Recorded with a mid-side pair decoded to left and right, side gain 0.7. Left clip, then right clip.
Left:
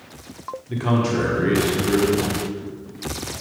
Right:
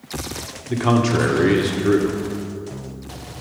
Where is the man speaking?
25° right, 1.4 m.